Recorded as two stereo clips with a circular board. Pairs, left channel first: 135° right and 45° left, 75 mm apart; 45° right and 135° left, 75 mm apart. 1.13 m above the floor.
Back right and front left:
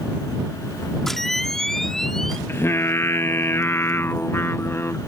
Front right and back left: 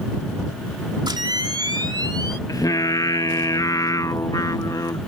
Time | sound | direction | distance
1.1 | a camera shutter | 140° left | ?
2.5 | singing | 80° right | ?